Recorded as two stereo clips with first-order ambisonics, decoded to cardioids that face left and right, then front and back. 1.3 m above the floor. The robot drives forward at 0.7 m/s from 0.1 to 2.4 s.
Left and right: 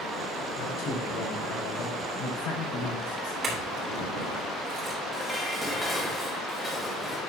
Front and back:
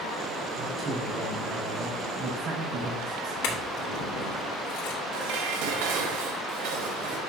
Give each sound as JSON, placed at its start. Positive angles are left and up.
{"t": 0.6, "sound": "a man speaking", "azimuth_deg": 110, "distance_m": 4.5}
{"t": 3.4, "sound": "a clink", "azimuth_deg": -25, "distance_m": 3.5}
{"t": 5.1, "sound": "dishes clattering", "azimuth_deg": 180, "distance_m": 1.3}